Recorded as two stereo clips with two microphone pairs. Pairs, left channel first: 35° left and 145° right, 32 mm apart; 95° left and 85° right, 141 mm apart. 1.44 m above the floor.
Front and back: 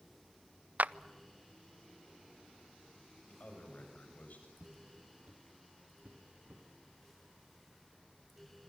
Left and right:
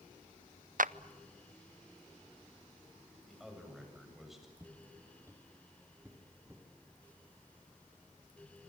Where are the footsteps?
155° right, 2.5 m.